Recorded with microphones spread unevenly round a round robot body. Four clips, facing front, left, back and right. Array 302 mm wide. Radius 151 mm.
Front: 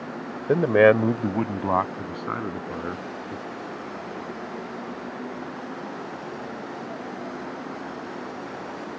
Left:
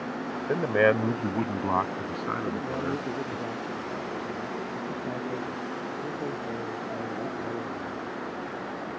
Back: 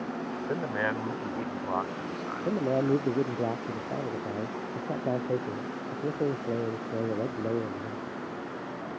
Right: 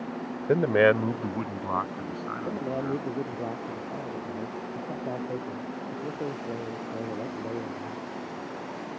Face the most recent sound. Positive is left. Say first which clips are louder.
# even, back 5 dB
turn(degrees=-175)